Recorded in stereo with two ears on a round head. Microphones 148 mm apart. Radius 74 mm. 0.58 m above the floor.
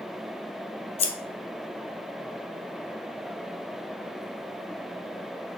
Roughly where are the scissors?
Left.